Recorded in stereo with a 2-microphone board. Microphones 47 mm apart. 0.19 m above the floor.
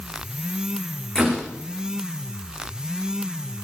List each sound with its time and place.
1.1 s a door slam: 15° left (ahead or behind), 9.5 m